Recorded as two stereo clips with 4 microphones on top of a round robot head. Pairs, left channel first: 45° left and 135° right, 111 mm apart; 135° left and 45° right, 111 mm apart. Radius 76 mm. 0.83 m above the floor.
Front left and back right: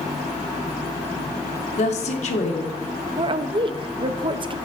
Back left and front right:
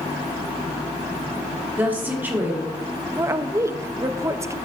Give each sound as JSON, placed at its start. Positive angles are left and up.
{"t": 1.8, "sound": "a woman speaking", "azimuth_deg": 25, "distance_m": 1.8}
{"t": 3.2, "sound": "a woman speaking", "azimuth_deg": -105, "distance_m": 0.7}